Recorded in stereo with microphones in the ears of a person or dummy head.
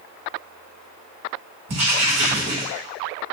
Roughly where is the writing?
Right.